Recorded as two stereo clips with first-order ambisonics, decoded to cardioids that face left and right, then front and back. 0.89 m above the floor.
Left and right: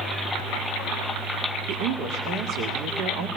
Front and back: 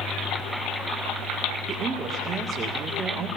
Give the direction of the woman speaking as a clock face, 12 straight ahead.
4 o'clock.